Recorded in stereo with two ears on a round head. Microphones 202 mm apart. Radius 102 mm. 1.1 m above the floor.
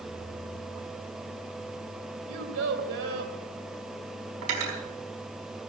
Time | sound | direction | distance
2.3 | a child speaking | 65° right (ahead or behind) | 2.5 m
4.4 | cutlery clinking | 65° right (ahead or behind) | 4.5 m